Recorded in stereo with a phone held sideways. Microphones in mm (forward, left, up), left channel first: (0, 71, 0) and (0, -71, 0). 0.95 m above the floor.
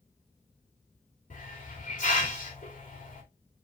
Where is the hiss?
60° left (ahead or behind), 3 m.